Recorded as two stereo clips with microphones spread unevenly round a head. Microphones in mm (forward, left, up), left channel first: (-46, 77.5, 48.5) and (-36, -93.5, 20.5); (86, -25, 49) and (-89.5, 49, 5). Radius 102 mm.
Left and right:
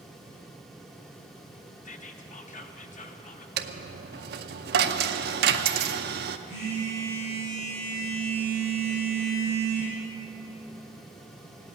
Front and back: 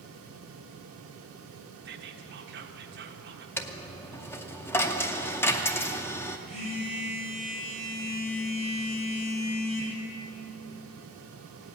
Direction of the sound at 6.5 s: 35° left.